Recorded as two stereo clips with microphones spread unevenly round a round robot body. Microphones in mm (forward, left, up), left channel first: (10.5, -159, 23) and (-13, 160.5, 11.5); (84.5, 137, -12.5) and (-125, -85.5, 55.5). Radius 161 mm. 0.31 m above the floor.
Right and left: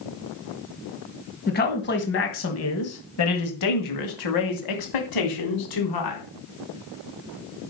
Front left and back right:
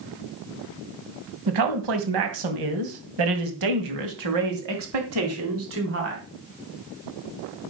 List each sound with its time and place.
1.5 s a man speaking: 150° right, 2.5 m; by 6.2 s 75° right, 3 m